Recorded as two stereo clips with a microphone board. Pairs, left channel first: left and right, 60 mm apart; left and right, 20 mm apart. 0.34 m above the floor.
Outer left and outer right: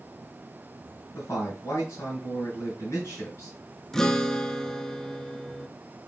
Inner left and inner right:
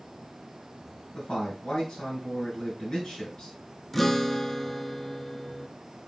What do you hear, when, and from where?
1.1 s a man speaking: 45° left (ahead or behind), 3 m
3.9 s a guitar: 10° left (ahead or behind), 0.6 m